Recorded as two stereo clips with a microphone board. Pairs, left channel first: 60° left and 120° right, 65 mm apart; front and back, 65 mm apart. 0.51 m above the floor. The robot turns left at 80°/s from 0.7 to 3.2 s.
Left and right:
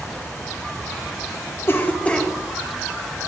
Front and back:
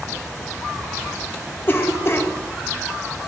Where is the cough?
30° left, 0.8 m; by 2.3 s 20° right, 0.8 m.